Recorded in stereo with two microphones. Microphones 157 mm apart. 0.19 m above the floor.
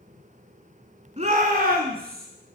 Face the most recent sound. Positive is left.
turn(degrees=-70)  # may be behind; listen again after turning